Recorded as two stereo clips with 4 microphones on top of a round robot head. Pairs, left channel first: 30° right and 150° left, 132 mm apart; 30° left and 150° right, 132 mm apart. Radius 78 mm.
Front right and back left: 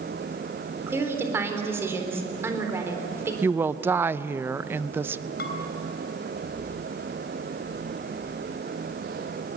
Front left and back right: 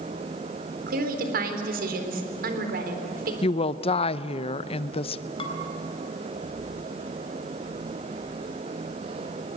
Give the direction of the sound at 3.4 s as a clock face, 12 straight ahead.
9 o'clock.